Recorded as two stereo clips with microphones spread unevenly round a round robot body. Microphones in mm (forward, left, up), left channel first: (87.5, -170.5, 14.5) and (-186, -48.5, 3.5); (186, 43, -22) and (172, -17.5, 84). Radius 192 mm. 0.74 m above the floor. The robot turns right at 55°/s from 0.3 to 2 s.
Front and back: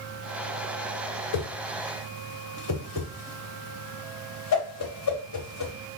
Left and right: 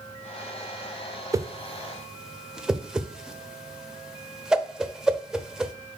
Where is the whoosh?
15° right, 0.8 m; by 5.7 s 20° left, 0.8 m.